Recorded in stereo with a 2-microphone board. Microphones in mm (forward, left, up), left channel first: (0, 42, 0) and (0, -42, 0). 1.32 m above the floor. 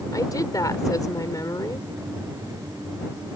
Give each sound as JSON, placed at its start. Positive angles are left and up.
{"t": 0.1, "sound": "a woman speaking", "side_deg": 45}